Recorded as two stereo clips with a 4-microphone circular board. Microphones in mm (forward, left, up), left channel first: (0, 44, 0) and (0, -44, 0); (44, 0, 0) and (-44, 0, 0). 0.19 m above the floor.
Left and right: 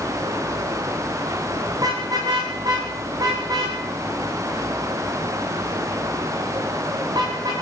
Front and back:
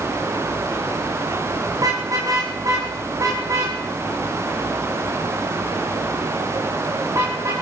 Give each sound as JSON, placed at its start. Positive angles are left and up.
{"t": 1.8, "sound": "a car horn", "azimuth_deg": -135, "distance_m": 8.5}